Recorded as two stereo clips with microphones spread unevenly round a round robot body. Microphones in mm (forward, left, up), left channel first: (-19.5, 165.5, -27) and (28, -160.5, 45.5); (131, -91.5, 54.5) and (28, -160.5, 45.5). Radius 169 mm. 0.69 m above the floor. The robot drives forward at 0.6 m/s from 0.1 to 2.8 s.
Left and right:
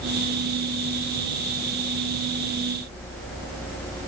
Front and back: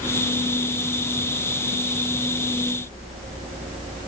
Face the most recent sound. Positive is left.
No sound to turn to.